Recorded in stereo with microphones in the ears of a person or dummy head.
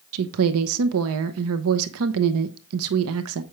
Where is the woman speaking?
80° right, 0.7 m.